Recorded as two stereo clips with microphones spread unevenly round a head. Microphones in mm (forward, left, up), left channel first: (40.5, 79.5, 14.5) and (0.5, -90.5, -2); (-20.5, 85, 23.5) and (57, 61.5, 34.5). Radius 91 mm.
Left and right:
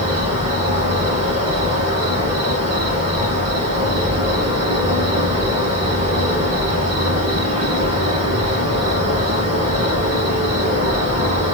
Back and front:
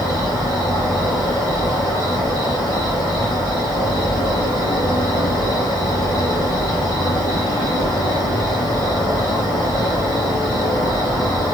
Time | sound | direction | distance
0.0 | an insect | 120° right | 2.5 m